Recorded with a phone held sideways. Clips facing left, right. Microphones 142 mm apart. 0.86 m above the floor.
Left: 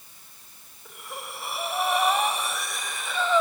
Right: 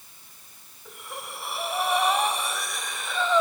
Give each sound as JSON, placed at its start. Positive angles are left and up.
{"t": 0.8, "sound": "breathing", "side_deg": 0, "distance_m": 1.6}